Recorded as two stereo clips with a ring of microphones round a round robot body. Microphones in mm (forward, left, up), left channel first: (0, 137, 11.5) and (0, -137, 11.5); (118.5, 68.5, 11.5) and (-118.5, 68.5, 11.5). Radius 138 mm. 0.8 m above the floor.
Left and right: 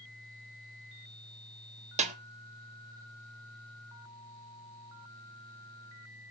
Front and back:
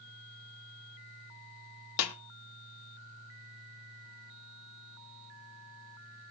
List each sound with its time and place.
2.0 s a snare drum: 25° right, 1.1 m